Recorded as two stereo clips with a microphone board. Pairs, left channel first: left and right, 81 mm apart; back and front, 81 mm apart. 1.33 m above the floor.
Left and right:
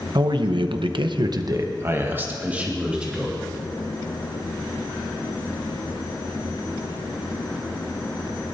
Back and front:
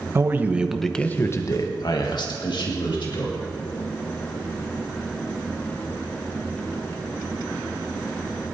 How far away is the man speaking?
About 1.1 m.